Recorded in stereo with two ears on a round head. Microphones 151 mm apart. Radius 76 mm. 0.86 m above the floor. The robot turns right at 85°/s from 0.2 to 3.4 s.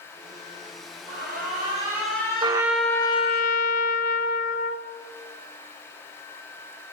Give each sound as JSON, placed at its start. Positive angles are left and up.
{"t": 1.1, "sound": "an alarm", "azimuth_deg": -85, "distance_m": 3.5}
{"t": 2.4, "sound": "a trumpet", "azimuth_deg": -30, "distance_m": 0.7}